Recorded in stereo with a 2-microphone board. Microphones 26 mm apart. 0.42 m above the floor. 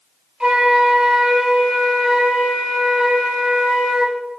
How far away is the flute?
About 1.1 m.